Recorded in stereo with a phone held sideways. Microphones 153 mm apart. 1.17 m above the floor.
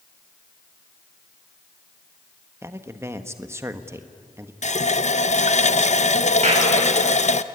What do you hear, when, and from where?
2.6 s a man speaking: 20° right (ahead or behind), 1.3 m
4.6 s a running tap: 55° left (ahead or behind), 0.6 m
6.4 s a clap: 50° right (ahead or behind), 6.5 m